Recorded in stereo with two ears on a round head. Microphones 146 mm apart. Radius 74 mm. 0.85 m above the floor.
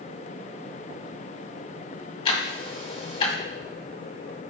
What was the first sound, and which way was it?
Ticking, 35° left (ahead or behind).